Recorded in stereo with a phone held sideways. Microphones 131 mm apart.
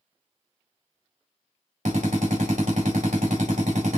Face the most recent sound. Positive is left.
turn(degrees=-75)  # may be behind; listen again after turning